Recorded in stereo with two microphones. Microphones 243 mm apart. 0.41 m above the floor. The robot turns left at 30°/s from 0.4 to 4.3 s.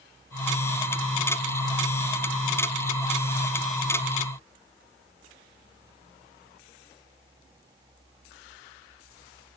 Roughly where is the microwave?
No microwave in this recording.